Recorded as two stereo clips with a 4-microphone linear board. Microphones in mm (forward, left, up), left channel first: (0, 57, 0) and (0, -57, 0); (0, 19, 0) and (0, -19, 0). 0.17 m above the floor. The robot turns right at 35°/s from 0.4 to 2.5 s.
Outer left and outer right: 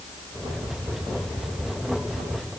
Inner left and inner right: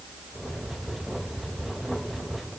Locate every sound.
Only background noise.